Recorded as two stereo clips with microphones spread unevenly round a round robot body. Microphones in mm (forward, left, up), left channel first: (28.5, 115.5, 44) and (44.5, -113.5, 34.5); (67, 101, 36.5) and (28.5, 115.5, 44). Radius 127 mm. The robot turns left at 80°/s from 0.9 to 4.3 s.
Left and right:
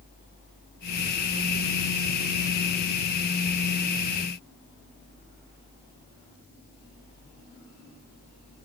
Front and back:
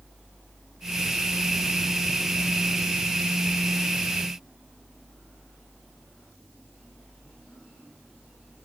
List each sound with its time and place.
Only background noise.